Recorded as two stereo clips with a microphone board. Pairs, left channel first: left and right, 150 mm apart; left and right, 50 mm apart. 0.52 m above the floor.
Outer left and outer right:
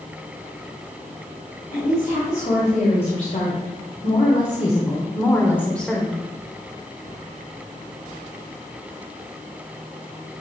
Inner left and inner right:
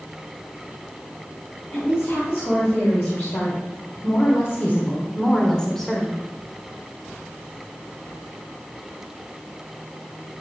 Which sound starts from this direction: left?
A woman speaking, at 1.7 s.